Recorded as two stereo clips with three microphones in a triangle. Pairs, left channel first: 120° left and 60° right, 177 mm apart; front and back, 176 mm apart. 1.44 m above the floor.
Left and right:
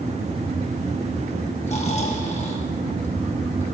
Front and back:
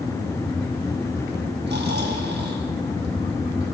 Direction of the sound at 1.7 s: 170° left.